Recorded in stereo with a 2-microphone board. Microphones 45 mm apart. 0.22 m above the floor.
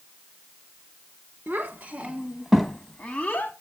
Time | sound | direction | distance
1.5 | a child speaking | 40° right (ahead or behind) | 1.4 m